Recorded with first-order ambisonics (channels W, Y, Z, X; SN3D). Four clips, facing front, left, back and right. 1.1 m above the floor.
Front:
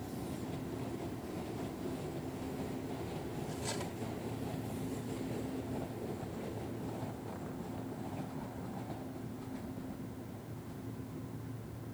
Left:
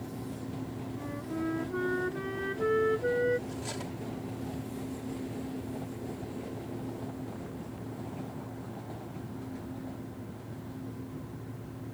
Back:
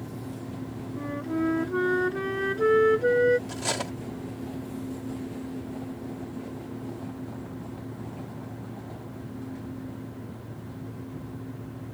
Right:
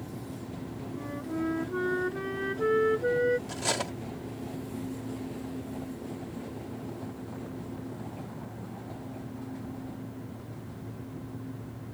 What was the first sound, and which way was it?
A flute, 175° right.